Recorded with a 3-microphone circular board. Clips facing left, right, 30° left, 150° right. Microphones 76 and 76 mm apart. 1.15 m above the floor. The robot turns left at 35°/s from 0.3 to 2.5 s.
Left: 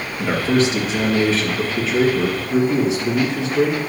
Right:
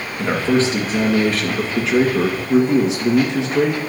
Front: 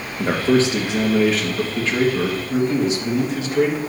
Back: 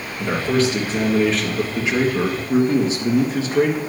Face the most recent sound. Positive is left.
turn(degrees=-95)